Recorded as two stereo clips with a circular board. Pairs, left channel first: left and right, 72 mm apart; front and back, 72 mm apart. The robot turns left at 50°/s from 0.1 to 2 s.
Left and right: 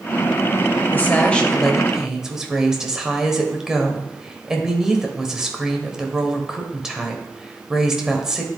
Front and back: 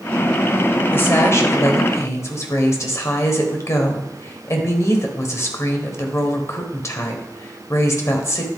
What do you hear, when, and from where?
0.9 s a woman speaking: 45° left, 1.2 m; by 8.5 s 10° right, 1.2 m